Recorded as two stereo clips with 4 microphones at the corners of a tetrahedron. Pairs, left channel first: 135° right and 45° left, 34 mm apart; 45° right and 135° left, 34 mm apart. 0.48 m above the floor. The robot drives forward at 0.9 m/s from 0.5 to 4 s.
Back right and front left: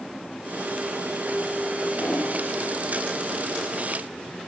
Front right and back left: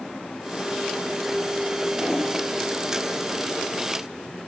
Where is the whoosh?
140° right, 7 m.